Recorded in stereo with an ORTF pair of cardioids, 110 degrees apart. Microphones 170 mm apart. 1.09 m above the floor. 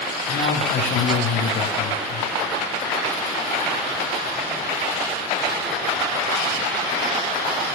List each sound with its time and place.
0.3 s a man speaking: 65° left, 8.5 m